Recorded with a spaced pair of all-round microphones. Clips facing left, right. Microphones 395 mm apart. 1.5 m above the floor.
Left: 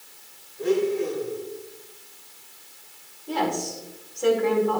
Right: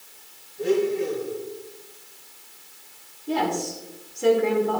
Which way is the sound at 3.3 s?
40° right (ahead or behind).